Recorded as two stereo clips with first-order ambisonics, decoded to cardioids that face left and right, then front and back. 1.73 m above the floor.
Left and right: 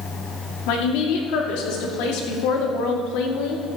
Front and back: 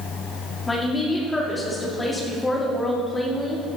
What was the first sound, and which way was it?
A woman speaking, 80° left.